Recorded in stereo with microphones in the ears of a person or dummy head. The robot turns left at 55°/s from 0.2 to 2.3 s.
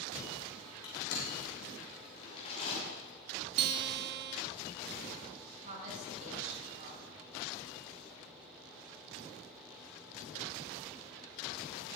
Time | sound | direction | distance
0.8 | crushing | 60° left (ahead or behind) | 6 m
3.6 | a guitar | 55° right (ahead or behind) | 0.6 m
5.6 | a woman speaking | 45° right (ahead or behind) | 5 m